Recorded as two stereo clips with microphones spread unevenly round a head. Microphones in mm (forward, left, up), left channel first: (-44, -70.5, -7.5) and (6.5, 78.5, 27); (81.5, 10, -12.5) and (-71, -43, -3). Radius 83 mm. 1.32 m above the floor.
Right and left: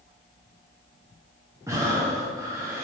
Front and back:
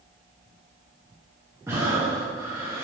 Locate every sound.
1.7 s breathing: 130° left, 0.8 m